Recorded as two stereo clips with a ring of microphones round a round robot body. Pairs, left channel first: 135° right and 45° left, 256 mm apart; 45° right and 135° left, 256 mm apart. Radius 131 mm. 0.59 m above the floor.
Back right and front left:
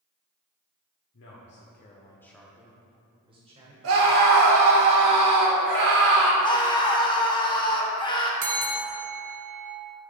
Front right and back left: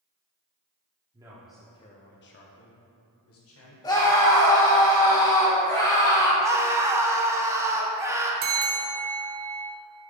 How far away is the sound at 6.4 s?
About 0.9 m.